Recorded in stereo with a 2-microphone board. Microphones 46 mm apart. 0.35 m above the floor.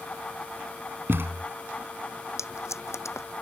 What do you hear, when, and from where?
1.1 s a thud: 55° right (ahead or behind)
2.4 s tape being pulled: 85° left